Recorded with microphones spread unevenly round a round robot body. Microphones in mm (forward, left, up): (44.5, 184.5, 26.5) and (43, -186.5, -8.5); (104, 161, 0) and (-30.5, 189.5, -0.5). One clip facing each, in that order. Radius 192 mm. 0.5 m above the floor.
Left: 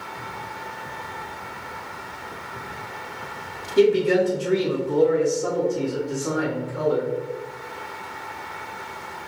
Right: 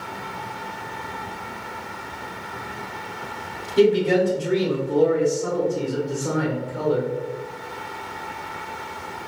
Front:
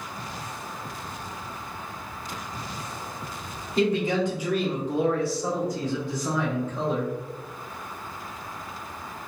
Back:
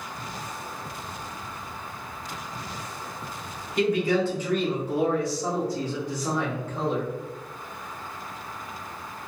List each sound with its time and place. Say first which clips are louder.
3.8 s a man speaking: even, even; 15° left, 1.2 m; by 7.1 s 145° left, 1.9 m